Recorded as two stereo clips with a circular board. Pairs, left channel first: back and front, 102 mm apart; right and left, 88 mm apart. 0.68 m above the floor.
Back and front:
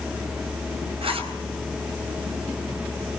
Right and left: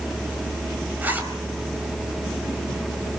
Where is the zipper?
20° left, 4 m.